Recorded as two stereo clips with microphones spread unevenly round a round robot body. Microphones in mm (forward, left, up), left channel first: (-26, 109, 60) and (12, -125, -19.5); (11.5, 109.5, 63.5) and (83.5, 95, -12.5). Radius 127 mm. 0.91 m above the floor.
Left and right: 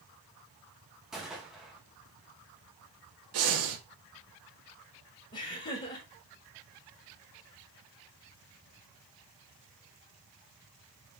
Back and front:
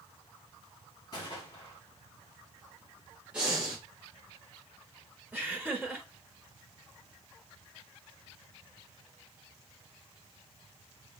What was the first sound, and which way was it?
A gunshot, 170° right.